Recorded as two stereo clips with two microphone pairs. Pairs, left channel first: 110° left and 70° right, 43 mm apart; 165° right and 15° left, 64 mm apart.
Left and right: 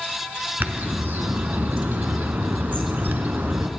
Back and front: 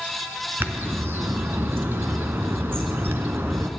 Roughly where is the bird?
Ahead right.